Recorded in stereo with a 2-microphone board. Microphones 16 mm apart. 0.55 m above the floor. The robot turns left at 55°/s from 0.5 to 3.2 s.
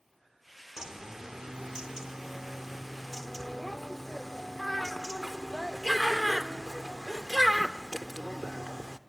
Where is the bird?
55° right, 0.9 m; by 9.0 s 175° left, 0.9 m.